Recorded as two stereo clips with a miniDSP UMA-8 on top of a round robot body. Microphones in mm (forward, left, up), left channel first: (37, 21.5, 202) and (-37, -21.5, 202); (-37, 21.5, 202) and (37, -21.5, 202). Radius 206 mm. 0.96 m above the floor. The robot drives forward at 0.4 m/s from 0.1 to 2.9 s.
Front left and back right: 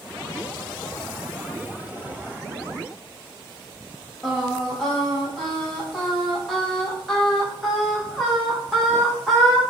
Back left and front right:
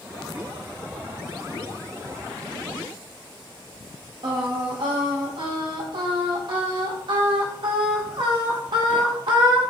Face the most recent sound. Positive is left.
turn(degrees=-65)